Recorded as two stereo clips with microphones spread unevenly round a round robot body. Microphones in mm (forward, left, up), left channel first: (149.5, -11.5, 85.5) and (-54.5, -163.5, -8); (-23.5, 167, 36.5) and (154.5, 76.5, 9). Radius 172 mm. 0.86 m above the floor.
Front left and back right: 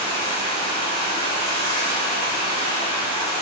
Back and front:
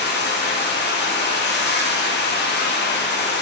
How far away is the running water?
About 1.2 m.